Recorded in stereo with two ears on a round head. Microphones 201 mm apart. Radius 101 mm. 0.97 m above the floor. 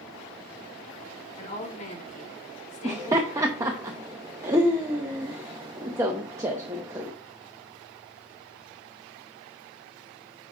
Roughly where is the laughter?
Centre.